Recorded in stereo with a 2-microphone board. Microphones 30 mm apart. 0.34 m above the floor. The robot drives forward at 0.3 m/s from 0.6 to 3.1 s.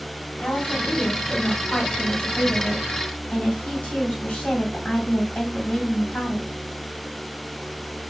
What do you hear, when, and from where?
0.4 s a woman speaking: 45° left (ahead or behind), 2 m; by 6.5 s 40° left (ahead or behind), 2.5 m